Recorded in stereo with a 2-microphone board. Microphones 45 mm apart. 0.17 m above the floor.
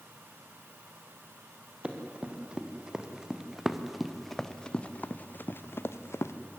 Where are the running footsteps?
25° right (ahead or behind), 4 m; by 6.3 s 80° left, 1.9 m.